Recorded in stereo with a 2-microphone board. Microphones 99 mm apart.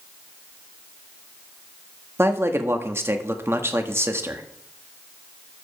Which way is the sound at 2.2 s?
25° right (ahead or behind).